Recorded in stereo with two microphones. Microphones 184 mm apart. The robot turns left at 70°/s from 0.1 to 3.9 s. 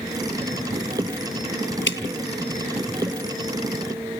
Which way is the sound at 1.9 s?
80° left.